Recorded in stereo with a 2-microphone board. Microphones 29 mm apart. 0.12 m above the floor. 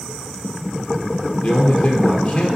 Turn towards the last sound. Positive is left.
turn(degrees=55)  # may be behind; listen again after turning